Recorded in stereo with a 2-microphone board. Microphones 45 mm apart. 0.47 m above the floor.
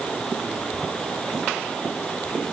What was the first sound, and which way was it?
Only background noise.